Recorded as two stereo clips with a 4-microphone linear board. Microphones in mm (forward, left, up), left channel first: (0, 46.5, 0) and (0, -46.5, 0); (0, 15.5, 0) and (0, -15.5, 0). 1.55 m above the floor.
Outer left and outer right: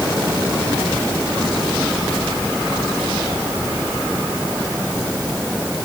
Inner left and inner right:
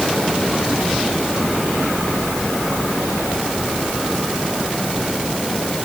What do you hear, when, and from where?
Only background noise.